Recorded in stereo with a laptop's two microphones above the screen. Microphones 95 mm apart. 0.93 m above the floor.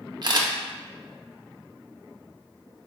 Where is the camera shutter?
45° right (ahead or behind), 0.5 m.